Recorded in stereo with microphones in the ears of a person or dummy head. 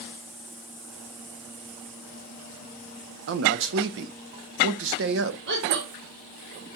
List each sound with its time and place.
3.3 s a man speaking: 75° right (ahead or behind), 1.0 m
5.5 s a woman speaking: 65° right (ahead or behind), 1.9 m